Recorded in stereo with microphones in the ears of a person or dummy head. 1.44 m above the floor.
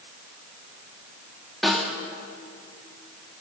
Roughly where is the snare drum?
Centre.